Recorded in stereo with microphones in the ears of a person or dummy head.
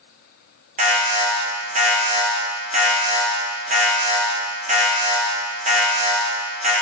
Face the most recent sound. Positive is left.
turn(degrees=-35)  # may be behind; listen again after turning